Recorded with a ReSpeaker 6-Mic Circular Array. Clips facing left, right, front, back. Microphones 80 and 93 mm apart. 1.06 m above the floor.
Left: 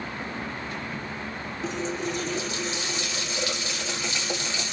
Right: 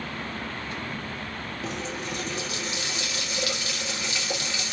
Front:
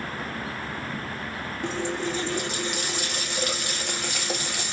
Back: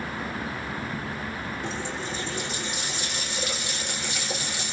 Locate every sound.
1.6 s a running tap: 30° left, 1.6 m